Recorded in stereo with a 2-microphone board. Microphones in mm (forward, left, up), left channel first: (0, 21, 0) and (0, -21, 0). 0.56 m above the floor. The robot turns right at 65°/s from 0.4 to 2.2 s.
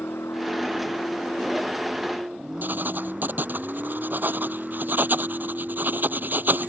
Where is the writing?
50° right (ahead or behind).